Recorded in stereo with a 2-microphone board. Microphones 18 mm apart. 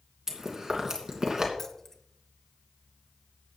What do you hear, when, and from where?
0.3 s chewing: 25° right (ahead or behind), 2.5 m
1.6 s keys jangling: 25° left (ahead or behind), 1.2 m